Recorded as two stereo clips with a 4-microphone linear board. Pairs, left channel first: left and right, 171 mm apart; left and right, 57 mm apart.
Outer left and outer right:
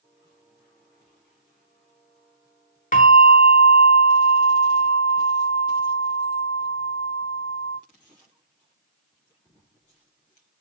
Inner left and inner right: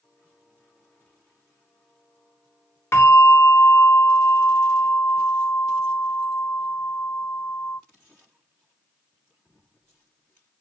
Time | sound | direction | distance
2.9 | a bell | 50° left (ahead or behind) | 1.3 m